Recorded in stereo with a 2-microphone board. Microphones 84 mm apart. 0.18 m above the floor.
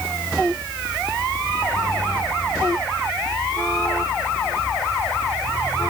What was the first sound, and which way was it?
Only background noise.